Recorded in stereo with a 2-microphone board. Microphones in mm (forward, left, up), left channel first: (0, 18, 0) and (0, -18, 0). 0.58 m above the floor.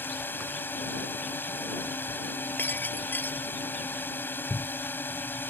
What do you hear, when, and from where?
0.0 s a drone: 70° left (ahead or behind)
2.6 s breaking glass: 65° left (ahead or behind)